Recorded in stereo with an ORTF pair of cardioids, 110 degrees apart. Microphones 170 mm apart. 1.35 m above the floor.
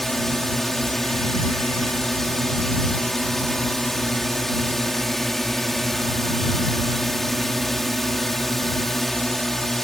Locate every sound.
0.0 s a drone: straight ahead